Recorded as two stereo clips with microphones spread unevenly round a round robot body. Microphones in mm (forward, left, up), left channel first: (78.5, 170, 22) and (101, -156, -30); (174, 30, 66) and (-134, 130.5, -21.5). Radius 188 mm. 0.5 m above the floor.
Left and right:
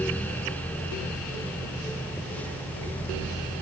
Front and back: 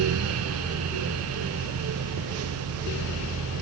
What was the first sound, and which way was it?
Only background noise.